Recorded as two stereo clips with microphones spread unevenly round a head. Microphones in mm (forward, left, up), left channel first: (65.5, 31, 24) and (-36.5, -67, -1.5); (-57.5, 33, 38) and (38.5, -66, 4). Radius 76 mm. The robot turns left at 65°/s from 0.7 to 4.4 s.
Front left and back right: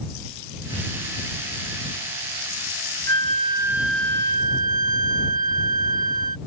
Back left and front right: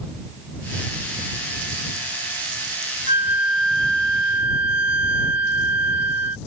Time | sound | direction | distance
3.1 | a flute | 175° right | ?